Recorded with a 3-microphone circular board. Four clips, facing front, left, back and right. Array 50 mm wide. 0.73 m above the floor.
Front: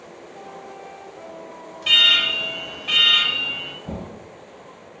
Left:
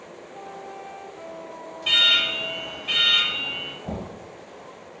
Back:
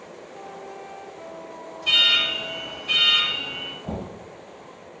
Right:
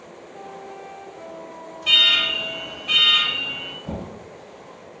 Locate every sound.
1.8 s an alarm: 10° left, 2.0 m
3.8 s knocking: 110° left, 1.9 m